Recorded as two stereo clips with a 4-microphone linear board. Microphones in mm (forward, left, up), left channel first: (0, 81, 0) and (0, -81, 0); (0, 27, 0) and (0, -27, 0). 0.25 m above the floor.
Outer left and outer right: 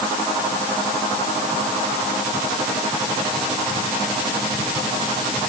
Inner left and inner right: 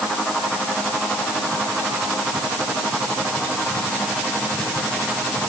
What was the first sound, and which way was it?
Only background noise.